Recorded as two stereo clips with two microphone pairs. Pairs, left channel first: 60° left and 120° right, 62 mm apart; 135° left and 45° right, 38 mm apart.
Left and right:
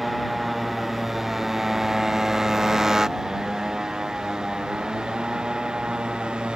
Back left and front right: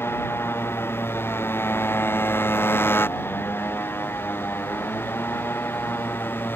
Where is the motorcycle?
150° left; by 6.6 s 165° left.